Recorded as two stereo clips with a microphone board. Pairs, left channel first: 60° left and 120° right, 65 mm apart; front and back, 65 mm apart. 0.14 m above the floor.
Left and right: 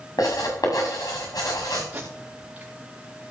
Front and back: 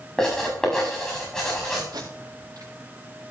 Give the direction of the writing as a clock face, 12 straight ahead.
9 o'clock.